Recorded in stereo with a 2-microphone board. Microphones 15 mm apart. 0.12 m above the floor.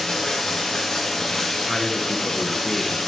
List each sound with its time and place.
0.0 s running water: 30° left (ahead or behind), 2 m
1.7 s a man speaking: 5° left (ahead or behind), 1.3 m